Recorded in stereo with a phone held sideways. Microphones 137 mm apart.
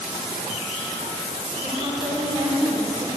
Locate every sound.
1.6 s a woman speaking: 45° right (ahead or behind), 4.5 m